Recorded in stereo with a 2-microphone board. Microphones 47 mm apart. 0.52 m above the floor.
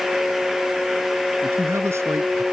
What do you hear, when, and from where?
1.4 s a man speaking: 70° right (ahead or behind); by 2.4 s 75° right (ahead or behind)